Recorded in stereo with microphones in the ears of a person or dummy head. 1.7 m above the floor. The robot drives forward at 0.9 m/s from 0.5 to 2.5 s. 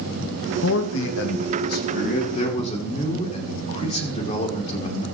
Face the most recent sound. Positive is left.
turn(degrees=35)  # may be behind; listen again after turning